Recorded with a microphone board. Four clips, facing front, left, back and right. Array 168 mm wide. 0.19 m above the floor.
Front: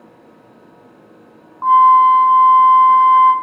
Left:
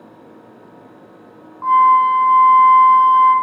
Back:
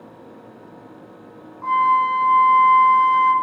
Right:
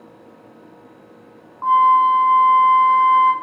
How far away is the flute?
About 2 m.